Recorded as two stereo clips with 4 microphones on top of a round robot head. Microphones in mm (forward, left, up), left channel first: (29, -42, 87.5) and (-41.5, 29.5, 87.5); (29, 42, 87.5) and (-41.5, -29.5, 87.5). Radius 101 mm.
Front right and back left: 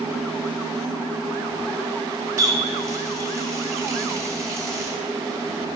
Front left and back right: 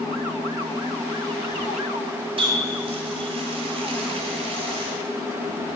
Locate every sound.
2.4 s a running tap: 165° right, 1.8 m